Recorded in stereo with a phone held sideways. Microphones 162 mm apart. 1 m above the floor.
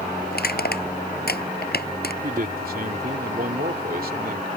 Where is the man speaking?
65° right (ahead or behind).